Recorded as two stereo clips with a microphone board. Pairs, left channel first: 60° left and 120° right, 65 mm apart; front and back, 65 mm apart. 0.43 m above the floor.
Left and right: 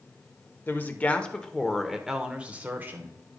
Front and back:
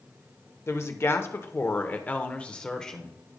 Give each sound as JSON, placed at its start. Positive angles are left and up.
{"t": 0.7, "sound": "a woman speaking", "azimuth_deg": 15, "distance_m": 1.1}